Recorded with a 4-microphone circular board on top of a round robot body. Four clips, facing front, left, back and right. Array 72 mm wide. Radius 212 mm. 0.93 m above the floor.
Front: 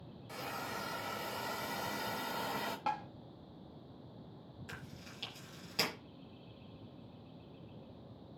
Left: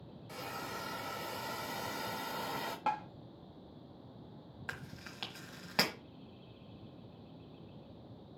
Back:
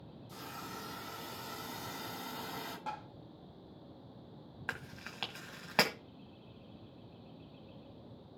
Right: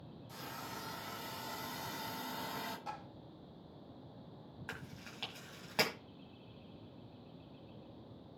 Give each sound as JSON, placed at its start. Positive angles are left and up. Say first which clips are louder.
{"t": 0.3, "sound": "a hiss", "louder": "left 4 dB, front 4 dB", "azimuth_deg": 40, "distance_m": 4.5}
{"t": 2.9, "sound": "tapping", "louder": "left 11 dB, front 6 dB", "azimuth_deg": 70, "distance_m": 0.5}
{"t": 4.7, "sound": "chewing", "louder": "left 3 dB, back 9 dB", "azimuth_deg": 170, "distance_m": 1.4}